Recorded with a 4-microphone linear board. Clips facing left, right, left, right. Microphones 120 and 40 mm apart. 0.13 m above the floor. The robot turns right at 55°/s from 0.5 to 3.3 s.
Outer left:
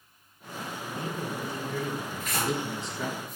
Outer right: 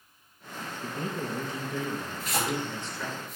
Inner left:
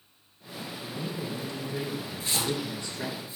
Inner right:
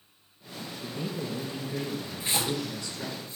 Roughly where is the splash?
Right.